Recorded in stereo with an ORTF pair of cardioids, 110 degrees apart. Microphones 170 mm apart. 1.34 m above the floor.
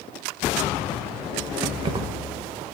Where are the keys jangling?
30° right, 0.8 m.